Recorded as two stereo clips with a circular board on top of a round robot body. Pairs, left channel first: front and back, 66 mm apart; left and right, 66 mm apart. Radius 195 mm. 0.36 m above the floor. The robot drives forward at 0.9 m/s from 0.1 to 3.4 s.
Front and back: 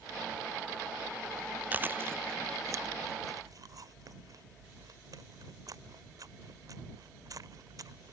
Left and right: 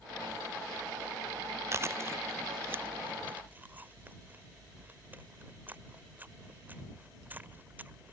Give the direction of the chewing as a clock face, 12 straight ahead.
4 o'clock.